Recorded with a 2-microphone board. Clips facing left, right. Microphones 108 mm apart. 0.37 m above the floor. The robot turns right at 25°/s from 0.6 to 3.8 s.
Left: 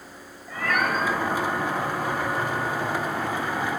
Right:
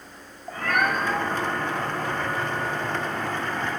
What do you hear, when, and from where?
0.5 s a cat meowing: 50° right (ahead or behind), 1.1 m; by 3.8 s 30° left (ahead or behind), 1.1 m